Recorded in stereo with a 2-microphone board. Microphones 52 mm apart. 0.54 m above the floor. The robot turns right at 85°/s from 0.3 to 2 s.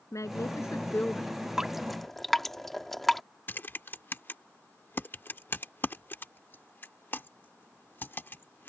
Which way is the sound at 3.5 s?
45° left (ahead or behind).